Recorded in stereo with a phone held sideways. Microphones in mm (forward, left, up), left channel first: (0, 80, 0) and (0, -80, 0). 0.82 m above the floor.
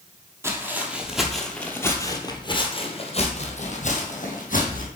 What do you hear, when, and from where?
0.4 s footsteps: 20° right (ahead or behind), 1.3 m; by 4.9 s 65° left (ahead or behind), 1.9 m